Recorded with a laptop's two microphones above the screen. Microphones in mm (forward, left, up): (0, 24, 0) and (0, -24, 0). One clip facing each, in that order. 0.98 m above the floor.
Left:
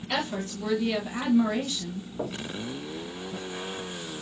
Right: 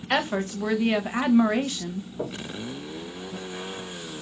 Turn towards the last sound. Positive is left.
turn(degrees=20)  # may be behind; listen again after turning